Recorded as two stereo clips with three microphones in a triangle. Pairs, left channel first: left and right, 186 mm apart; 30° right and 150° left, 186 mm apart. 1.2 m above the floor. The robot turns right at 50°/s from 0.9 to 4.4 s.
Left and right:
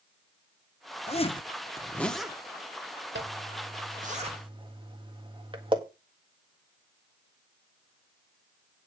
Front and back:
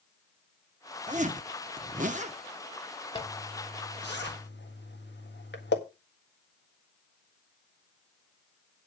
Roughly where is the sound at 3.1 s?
Right.